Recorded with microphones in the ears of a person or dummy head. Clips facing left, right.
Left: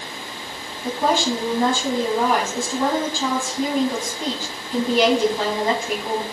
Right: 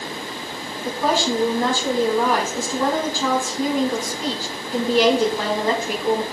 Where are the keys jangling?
I don't hear keys jangling.